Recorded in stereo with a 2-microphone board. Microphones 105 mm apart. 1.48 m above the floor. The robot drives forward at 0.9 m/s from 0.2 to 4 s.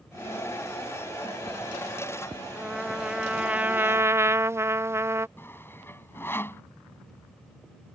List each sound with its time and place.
2.5 s a trumpet: 5° right (ahead or behind); by 5.3 s 25° right (ahead or behind)
5.4 s sawing: 20° left (ahead or behind)